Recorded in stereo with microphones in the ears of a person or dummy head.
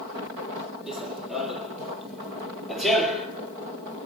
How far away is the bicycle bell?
I don't hear a bicycle bell.